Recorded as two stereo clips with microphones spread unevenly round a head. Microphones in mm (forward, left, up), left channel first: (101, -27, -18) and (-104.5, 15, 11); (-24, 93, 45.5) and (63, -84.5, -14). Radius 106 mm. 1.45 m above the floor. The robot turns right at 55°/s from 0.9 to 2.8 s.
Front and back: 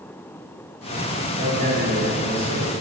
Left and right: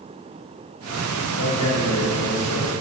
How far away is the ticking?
No ticking in this recording.